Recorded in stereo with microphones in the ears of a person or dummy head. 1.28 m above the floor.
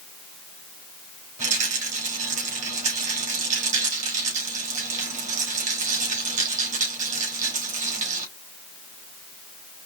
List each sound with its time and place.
1.4 s a rattle: 40° right (ahead or behind), 3 m